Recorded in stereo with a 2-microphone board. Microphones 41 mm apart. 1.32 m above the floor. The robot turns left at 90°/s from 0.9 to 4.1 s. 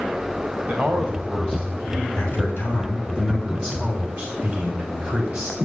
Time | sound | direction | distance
0.7 | a man speaking | 110° right | 2 m
2.2 | a man speaking | 150° left | 3 m